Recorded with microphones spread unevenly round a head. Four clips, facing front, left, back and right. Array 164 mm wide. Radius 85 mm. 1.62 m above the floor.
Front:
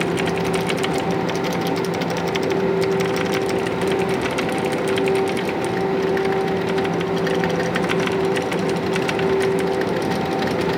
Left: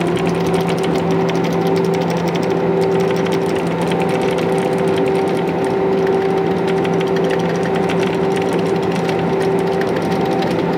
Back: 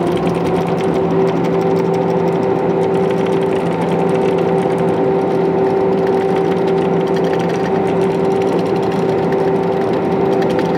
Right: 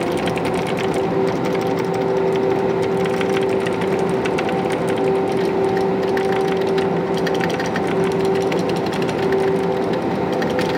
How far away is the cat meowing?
I don't hear a cat meowing.